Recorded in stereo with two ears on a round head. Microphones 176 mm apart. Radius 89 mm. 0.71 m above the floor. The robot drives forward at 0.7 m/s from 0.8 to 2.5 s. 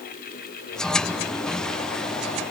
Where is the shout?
I don't hear a shout.